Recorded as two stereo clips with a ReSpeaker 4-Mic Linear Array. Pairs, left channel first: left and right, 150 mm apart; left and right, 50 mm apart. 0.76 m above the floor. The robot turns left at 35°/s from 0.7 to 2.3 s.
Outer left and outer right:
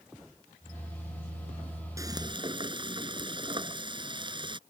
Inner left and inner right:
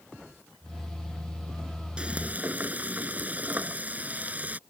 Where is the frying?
20° right (ahead or behind); by 4.6 s 30° right (ahead or behind).